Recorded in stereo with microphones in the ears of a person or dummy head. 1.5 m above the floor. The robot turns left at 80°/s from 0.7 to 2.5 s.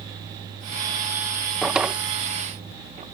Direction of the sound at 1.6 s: 5° left (ahead or behind).